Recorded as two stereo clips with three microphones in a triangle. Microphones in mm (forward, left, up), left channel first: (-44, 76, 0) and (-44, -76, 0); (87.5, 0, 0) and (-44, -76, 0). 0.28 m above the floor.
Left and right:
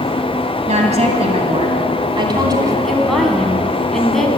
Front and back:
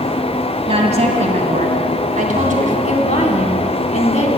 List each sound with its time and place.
0.7 s a woman speaking: 115° right, 2 m; by 2.8 s 155° right, 2.5 m
2.9 s a woman speaking: straight ahead, 2 m